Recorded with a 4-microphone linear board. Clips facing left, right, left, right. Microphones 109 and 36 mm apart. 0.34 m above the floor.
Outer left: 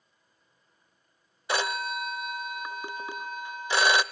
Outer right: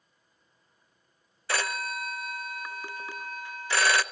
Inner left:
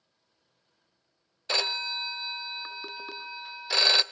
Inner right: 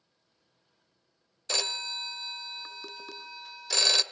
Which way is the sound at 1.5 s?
20° left (ahead or behind).